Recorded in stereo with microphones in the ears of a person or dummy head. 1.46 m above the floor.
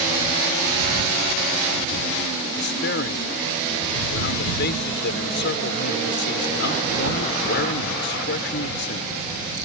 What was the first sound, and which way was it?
A man speaking, 60° left (ahead or behind).